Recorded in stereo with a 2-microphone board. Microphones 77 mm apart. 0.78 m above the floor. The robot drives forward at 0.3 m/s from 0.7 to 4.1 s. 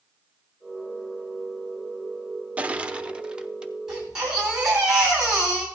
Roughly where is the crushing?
Centre.